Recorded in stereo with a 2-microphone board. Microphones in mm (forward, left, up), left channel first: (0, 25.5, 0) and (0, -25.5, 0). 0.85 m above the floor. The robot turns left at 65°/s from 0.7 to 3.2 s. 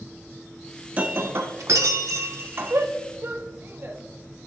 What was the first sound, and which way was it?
Breaking glass, 30° right.